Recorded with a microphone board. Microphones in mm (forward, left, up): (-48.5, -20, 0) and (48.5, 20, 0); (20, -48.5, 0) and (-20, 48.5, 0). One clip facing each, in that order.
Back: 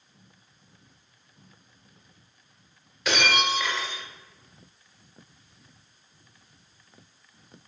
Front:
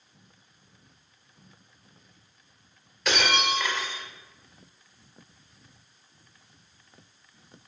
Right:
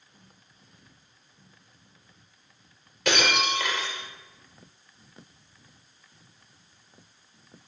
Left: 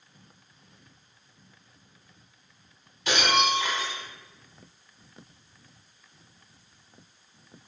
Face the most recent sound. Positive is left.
turn(degrees=-70)